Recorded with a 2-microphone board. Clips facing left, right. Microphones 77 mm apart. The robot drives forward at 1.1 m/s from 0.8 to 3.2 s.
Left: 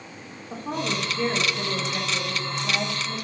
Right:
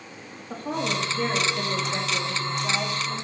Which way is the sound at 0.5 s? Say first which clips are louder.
Right 1 dB; 55° right (ahead or behind).